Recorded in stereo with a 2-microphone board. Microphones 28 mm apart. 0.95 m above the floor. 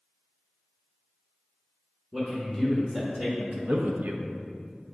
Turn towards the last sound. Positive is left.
turn(degrees=-55)  # may be behind; listen again after turning